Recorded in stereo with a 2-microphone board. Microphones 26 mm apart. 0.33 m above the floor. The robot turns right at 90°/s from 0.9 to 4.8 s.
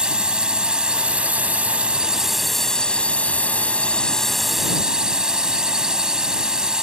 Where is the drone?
140° right; by 6.8 s 145° right.